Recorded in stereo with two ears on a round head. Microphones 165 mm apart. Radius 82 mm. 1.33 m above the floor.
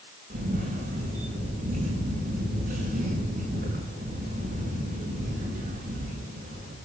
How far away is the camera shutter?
About 6.5 m.